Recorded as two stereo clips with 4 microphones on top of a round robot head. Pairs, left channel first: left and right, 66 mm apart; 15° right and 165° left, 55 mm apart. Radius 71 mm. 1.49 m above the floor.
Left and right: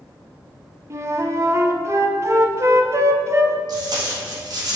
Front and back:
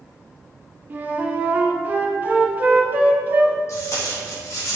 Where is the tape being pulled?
60° right, 1.4 m.